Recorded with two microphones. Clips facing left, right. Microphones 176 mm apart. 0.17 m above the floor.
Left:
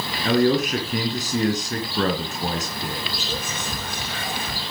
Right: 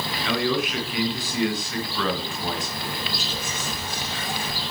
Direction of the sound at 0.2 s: 45° left (ahead or behind).